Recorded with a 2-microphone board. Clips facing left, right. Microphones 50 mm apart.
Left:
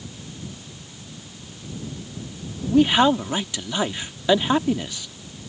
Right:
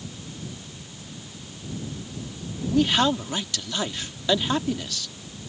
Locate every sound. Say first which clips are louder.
2.7 s a man speaking: left 5 dB; 20° left (ahead or behind)